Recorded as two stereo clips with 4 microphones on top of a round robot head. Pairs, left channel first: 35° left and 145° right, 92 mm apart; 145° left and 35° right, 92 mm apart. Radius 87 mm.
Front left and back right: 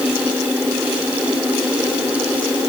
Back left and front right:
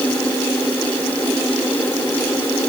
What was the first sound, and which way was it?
Only background noise.